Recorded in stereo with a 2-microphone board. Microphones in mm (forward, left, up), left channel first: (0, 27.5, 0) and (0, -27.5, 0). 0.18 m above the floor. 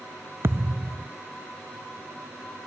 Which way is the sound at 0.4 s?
45° right (ahead or behind).